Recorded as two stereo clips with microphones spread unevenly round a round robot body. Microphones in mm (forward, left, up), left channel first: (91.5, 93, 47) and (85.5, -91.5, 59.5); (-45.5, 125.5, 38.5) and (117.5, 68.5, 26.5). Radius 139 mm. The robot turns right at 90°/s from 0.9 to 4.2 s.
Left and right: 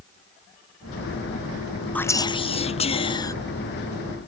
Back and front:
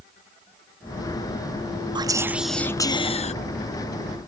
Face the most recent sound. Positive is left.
turn(degrees=-140)